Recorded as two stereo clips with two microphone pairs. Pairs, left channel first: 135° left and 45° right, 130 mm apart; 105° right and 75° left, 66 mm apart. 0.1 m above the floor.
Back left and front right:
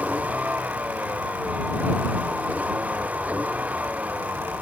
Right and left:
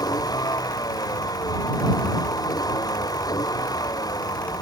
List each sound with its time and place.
0.0 s a vehicle: 125° right